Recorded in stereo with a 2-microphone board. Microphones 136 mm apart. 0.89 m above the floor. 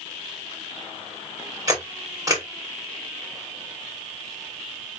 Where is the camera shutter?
25° right (ahead or behind), 3 m.